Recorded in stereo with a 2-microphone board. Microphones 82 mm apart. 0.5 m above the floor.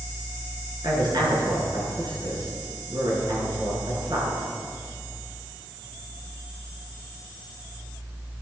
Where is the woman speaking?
60° right (ahead or behind), 6 m.